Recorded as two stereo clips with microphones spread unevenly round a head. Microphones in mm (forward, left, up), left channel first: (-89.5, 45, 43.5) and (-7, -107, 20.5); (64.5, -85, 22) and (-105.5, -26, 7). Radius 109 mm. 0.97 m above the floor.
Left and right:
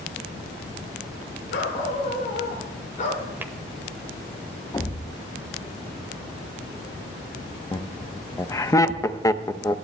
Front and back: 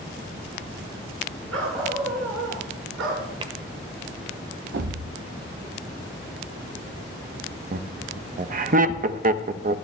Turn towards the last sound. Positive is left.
turn(degrees=-170)